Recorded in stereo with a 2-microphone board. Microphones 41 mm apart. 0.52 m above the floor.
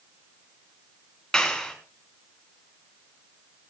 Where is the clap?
15° left (ahead or behind), 6 m.